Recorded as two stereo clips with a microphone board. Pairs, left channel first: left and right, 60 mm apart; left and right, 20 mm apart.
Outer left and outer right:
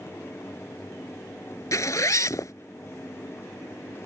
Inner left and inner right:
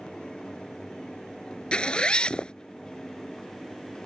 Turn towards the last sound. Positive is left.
turn(degrees=60)  # may be behind; listen again after turning